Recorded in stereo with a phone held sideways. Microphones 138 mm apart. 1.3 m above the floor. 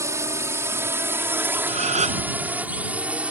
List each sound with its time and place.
0.0 s a drone: 20° right (ahead or behind); by 3.3 s 10° right (ahead or behind)
1.7 s a gasp: 55° right (ahead or behind)